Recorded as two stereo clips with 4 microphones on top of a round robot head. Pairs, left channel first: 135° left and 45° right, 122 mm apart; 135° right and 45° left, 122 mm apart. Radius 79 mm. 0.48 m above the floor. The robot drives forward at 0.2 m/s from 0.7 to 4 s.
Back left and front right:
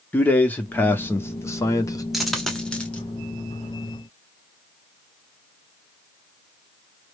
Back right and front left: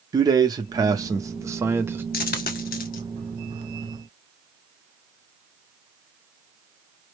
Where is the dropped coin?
135° right, 0.5 m; by 3.0 s 145° right, 0.7 m.